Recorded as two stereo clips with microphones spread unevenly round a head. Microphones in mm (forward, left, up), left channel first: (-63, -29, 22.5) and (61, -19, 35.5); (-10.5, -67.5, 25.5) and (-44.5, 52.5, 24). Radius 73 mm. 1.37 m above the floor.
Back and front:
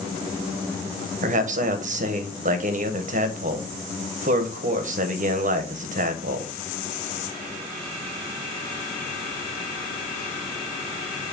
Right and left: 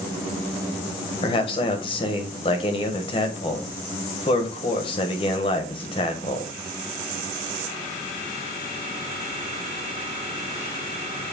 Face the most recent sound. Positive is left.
turn(degrees=-20)